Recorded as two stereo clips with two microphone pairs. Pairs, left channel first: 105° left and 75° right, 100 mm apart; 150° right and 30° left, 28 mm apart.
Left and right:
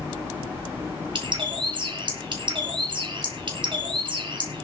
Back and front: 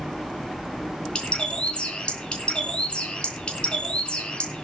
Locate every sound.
1.1 s a bird: 105° right, 3 m